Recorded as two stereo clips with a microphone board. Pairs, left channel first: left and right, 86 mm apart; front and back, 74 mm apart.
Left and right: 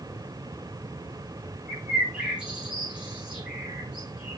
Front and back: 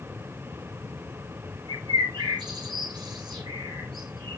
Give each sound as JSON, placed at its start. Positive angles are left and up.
{"t": 1.7, "sound": "a bird", "azimuth_deg": -170, "distance_m": 6.5}